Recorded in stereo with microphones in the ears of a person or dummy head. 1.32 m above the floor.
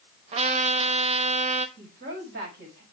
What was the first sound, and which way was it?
A trumpet, 40° right (ahead or behind).